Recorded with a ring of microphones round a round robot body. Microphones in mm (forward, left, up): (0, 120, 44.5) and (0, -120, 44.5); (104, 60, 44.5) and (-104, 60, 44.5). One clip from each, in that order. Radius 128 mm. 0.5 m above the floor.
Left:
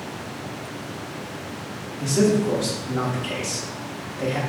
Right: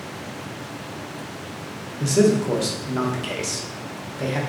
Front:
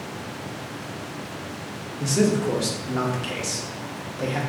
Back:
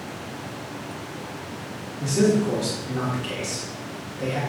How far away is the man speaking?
About 0.8 m.